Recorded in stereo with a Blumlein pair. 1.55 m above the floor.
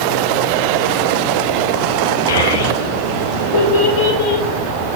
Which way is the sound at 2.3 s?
65° left.